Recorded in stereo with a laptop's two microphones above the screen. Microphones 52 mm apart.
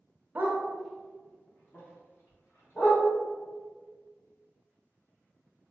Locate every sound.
0.3 s a dog barking: 30° right (ahead or behind), 0.6 m; by 3.0 s 60° left (ahead or behind), 1.5 m